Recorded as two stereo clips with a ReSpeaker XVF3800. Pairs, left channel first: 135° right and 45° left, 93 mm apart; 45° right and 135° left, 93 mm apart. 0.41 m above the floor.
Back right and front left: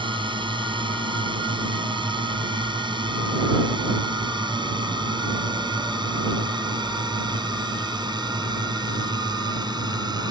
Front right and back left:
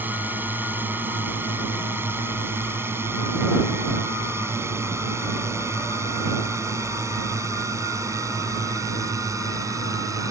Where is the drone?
65° left; by 10.3 s 85° left.